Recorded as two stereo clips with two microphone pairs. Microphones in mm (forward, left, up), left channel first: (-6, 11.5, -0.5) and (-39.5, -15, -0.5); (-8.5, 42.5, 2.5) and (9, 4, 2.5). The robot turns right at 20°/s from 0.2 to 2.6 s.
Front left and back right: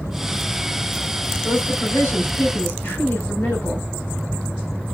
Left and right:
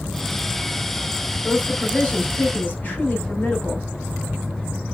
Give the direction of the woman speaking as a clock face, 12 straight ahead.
11 o'clock.